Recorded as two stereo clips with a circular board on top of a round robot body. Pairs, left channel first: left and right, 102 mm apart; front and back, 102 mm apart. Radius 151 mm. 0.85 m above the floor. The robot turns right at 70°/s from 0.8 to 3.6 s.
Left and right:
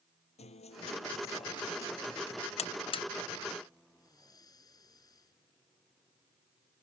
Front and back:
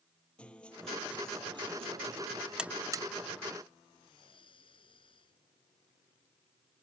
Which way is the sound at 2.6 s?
95° left.